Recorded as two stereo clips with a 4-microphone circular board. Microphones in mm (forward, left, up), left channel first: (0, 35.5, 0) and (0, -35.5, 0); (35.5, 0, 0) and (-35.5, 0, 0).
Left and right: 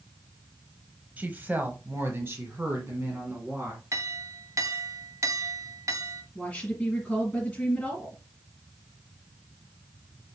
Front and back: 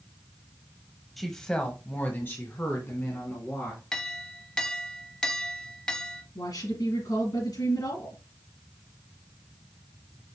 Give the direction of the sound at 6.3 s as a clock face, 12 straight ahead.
12 o'clock.